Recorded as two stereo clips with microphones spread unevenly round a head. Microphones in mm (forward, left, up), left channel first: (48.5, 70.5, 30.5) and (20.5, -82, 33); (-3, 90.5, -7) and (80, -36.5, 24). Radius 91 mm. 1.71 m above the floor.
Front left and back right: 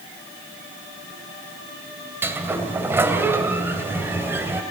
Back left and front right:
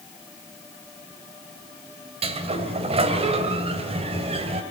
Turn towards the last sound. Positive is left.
turn(degrees=-25)